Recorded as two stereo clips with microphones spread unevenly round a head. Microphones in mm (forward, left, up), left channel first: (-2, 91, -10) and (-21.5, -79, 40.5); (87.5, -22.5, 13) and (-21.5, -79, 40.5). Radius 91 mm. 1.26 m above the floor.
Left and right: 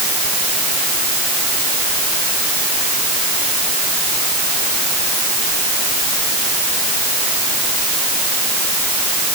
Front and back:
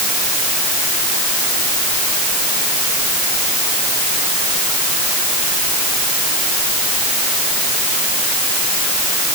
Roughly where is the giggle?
I don't hear a giggle.